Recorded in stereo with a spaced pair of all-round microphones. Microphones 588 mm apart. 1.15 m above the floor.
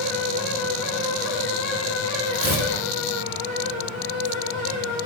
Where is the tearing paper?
20° right (ahead or behind), 1.6 m.